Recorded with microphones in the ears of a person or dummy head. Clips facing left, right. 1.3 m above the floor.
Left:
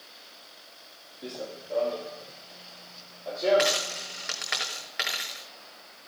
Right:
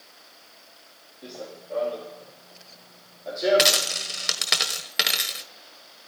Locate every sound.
1.2 s running footsteps: 10° left (ahead or behind), 2.5 m; by 4.5 s 25° right (ahead or behind), 3 m
3.6 s a dropped coin: 45° right (ahead or behind), 1.5 m